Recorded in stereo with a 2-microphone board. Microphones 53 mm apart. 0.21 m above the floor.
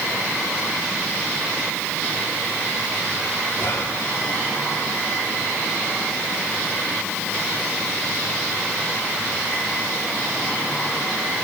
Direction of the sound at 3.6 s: 45° left (ahead or behind).